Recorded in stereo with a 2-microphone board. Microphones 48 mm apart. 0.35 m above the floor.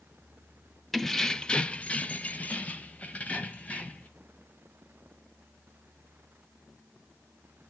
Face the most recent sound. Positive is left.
turn(degrees=30)  # may be behind; listen again after turning